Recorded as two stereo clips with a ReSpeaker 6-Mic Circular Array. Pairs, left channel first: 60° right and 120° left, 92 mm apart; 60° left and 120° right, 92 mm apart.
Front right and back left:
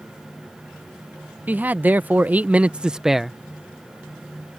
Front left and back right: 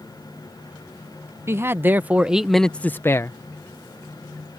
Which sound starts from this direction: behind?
A man speaking, at 1.5 s.